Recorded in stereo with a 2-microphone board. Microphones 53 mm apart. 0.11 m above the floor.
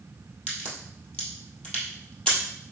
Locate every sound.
0.5 s a crack: 20° left (ahead or behind), 2 m